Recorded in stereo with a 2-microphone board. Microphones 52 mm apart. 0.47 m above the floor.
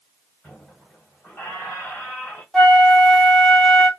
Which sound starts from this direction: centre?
A flute, at 2.5 s.